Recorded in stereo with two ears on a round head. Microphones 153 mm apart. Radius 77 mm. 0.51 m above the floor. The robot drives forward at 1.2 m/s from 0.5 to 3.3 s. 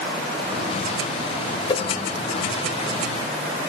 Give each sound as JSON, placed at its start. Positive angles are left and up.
{"t": 1.7, "sound": "a whoosh", "side_deg": 35, "distance_m": 1.5}